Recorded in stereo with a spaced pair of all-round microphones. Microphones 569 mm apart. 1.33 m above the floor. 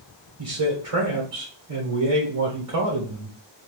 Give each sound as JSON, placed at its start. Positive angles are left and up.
{"t": 0.4, "sound": "a man speaking", "side_deg": -70, "distance_m": 1.2}